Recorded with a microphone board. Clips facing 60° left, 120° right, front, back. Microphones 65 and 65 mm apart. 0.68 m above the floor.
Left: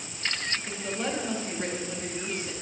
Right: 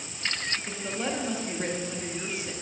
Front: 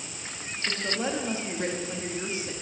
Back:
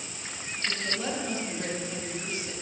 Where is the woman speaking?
40° right, 1.1 m.